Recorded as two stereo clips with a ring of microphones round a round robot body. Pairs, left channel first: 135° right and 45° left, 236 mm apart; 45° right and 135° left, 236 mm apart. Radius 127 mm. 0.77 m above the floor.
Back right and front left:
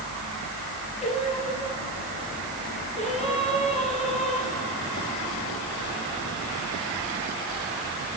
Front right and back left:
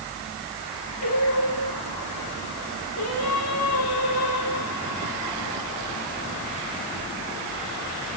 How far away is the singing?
About 6 m.